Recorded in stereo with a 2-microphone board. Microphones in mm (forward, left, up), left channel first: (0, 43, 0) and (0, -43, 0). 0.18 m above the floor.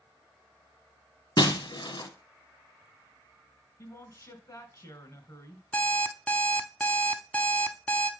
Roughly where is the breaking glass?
Left.